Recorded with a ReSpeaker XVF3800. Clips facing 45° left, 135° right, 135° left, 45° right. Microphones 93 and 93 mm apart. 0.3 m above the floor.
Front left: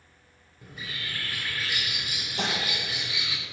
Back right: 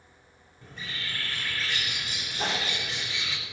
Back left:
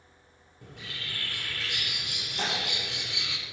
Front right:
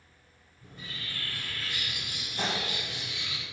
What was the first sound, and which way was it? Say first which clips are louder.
A bird: even, back left 1 dB; 130° left.